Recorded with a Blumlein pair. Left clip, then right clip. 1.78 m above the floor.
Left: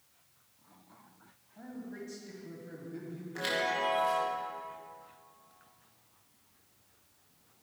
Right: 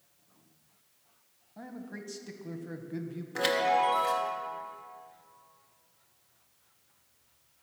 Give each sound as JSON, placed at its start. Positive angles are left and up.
{"t": 1.6, "sound": "a man speaking", "azimuth_deg": -25, "distance_m": 1.8}
{"t": 3.4, "sound": "a chime", "azimuth_deg": -70, "distance_m": 2.0}